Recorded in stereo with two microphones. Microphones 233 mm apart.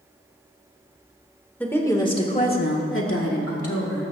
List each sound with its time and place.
1.6 s a woman speaking: 5° left (ahead or behind), 2 m; by 4.1 s 75° left (ahead or behind), 2.5 m